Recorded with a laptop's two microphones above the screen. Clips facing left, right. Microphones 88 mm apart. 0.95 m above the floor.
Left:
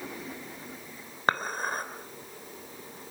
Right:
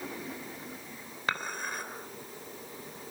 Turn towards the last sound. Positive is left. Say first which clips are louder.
# left 6 dB
turn(degrees=40)  # may be behind; listen again after turning